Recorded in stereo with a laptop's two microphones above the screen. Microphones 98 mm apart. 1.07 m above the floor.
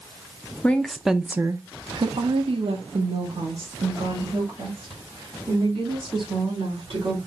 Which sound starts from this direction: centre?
A woman speaking, at 0.6 s.